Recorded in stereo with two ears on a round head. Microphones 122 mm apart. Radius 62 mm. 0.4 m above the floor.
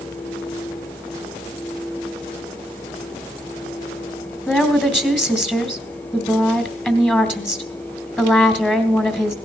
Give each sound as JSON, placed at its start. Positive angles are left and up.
{"t": 4.5, "sound": "a woman speaking", "side_deg": 15, "distance_m": 2.0}